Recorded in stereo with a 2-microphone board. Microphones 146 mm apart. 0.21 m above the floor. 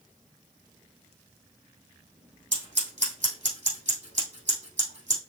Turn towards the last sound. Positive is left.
turn(degrees=-55)  # may be behind; listen again after turning